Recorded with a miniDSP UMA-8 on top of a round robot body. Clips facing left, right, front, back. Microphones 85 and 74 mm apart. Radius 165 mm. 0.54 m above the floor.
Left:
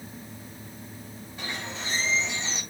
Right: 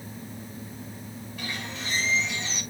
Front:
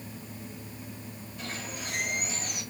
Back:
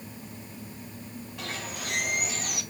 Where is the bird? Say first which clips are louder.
Left 1 dB, back 1 dB; 155° left, 4.5 m.